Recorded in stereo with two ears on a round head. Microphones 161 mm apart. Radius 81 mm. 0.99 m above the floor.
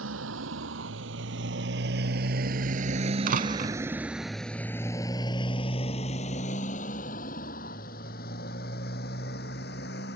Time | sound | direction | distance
0.0 | a motorcycle | 80° right | ?
3.3 | a door slam | 50° right (ahead or behind) | ?